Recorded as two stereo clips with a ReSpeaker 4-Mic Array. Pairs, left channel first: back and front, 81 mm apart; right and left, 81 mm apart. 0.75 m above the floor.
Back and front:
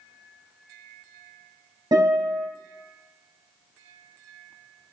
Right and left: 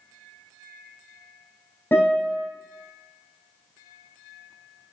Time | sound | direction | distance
1.9 | a guitar | 25° right | 3.5 m